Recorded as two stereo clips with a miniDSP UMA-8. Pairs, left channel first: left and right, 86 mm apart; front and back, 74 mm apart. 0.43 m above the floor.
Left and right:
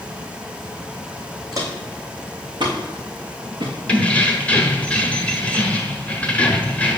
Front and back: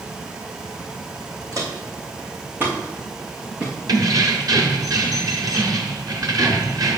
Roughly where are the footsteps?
Behind right.